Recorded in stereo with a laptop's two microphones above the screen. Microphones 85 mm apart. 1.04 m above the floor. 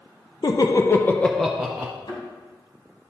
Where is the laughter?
50° left (ahead or behind), 0.7 m; by 1.9 s 20° right (ahead or behind), 0.7 m.